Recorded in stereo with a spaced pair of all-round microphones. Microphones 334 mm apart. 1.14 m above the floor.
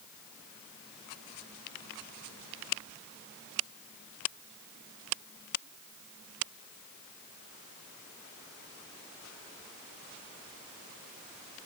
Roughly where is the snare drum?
I don't hear a snare drum.